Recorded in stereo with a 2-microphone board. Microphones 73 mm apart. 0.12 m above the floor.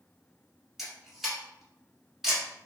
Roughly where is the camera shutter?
Centre.